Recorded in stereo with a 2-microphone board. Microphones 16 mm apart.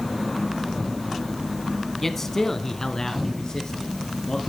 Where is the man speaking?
20° left (ahead or behind), 1.1 m; by 4.4 s 45° left (ahead or behind), 2.5 m.